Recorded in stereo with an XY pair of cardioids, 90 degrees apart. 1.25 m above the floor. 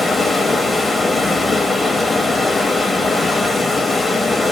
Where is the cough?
I don't hear a cough.